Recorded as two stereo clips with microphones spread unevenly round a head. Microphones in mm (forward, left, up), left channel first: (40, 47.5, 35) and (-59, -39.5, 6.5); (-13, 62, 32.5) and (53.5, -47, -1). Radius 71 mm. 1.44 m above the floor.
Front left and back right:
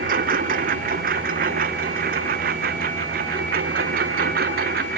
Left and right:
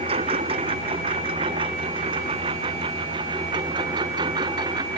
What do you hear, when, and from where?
0.0 s a lawn mower: 110° right; by 5.0 s 120° right